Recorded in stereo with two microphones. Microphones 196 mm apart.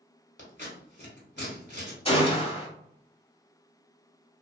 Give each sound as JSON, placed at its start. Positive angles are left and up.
{"t": 0.4, "sound": "scissors", "side_deg": 70, "distance_m": 1.3}
{"t": 2.0, "sound": "a gunshot", "side_deg": 30, "distance_m": 0.8}